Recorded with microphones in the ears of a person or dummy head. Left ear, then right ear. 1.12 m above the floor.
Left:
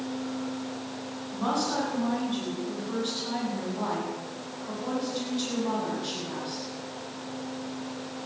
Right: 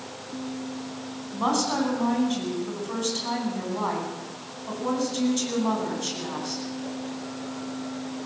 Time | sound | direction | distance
1.3 | a woman speaking | 75° right (ahead or behind) | 9.5 m